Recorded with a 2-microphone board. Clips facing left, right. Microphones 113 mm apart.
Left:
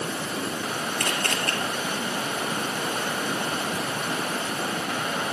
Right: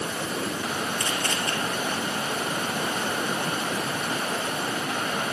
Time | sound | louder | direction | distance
1.0 | a camera shutter | left 1 dB | 60° left (ahead or behind) | 2.5 m